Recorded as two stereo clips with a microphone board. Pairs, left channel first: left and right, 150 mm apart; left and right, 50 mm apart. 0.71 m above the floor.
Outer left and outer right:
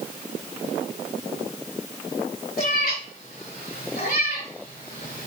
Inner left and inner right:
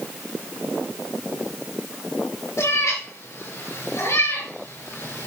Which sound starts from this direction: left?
A cat meowing, at 2.6 s.